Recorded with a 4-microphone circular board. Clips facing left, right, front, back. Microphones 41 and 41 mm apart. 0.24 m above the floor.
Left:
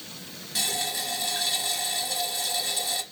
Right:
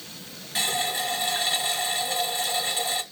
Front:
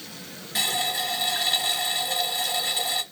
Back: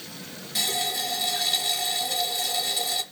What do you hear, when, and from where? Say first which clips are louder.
0.6 s a running tap: right 4 dB, front 2 dB; 40° right, 1.1 m